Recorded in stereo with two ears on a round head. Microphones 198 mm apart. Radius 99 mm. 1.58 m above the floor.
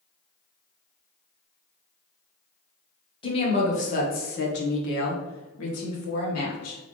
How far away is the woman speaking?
About 1.4 m.